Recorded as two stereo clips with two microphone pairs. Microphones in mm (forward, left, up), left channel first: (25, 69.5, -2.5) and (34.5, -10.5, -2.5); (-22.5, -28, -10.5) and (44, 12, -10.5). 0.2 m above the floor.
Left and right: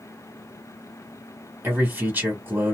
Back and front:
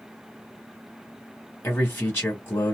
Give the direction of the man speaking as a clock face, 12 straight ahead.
4 o'clock.